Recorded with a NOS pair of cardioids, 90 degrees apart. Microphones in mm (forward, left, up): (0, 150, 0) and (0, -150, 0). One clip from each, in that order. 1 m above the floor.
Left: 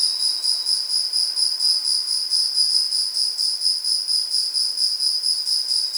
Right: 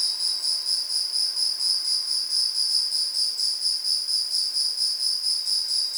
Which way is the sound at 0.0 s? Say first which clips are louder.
Left 4 dB; 15° left.